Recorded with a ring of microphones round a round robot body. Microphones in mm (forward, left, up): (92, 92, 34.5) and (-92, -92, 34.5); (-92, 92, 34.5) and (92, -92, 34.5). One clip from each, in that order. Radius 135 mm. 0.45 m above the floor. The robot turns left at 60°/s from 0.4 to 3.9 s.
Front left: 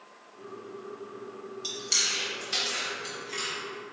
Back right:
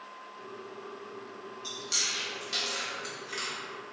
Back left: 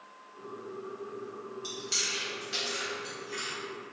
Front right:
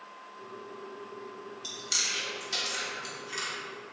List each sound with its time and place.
1.6 s chewing: 20° left, 1.3 m; by 3.5 s 95° right, 1.3 m